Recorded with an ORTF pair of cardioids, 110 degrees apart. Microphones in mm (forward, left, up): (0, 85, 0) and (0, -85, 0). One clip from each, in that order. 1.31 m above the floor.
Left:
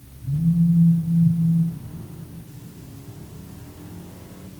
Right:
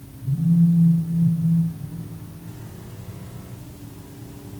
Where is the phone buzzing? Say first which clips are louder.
Right 1 dB; 15° right, 1.8 m.